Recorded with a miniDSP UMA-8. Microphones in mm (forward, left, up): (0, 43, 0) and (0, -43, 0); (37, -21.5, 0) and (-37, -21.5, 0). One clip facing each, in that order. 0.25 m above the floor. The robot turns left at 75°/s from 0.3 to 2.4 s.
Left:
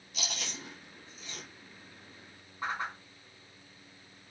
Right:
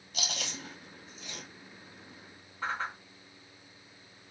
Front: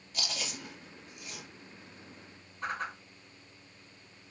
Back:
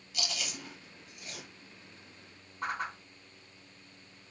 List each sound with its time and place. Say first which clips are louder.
0.1 s chewing: right 2 dB, even; 50° right, 2.5 m; by 1.4 s 135° right, 2.5 m
2.6 s a whoosh: right 1 dB, back 1 dB; 165° left, 2.5 m